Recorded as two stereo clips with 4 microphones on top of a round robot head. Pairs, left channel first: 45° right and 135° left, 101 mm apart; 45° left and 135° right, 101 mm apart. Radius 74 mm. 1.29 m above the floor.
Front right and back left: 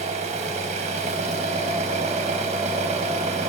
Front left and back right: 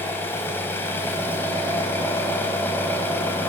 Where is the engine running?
115° left, 3 m.